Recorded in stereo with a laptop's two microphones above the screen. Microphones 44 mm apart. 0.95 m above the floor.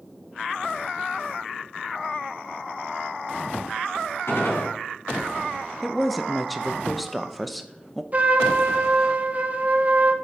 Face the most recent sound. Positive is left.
turn(degrees=-35)  # may be behind; listen again after turning